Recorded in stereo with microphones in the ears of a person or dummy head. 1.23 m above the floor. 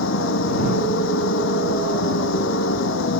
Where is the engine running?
80° left.